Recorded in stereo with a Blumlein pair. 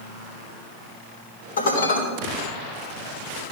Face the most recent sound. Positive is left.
turn(degrees=65)